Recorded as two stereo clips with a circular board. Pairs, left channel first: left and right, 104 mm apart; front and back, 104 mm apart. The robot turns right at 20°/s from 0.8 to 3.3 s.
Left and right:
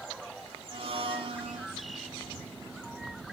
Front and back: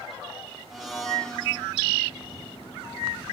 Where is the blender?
95° right, 0.7 m; by 1.7 s 75° right, 0.7 m.